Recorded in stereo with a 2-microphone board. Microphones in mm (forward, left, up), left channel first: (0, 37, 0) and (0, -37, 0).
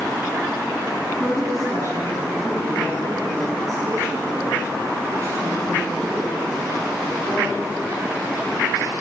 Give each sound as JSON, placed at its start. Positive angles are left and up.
{"t": 1.2, "sound": "a woman speaking", "side_deg": -45, "distance_m": 4.5}